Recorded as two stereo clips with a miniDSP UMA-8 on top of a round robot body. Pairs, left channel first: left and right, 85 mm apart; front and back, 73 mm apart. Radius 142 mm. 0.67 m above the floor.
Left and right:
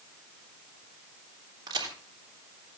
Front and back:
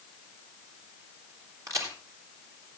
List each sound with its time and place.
1.7 s a crack: 135° right, 3.5 m